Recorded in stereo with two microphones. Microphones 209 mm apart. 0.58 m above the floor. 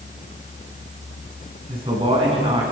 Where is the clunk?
I don't hear a clunk.